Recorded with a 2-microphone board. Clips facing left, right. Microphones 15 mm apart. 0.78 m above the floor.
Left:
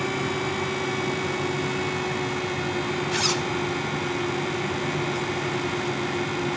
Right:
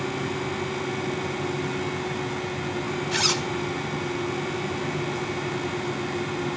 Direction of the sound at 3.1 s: 5° right (ahead or behind).